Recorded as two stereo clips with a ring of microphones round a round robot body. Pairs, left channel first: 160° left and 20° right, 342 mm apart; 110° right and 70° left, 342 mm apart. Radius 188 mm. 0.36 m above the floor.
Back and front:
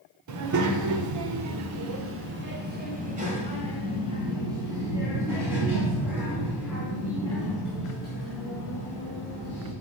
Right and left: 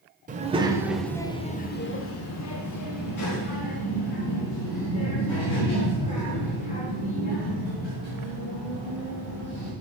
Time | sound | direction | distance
0.3 | a child speaking | 5° left | 1.0 m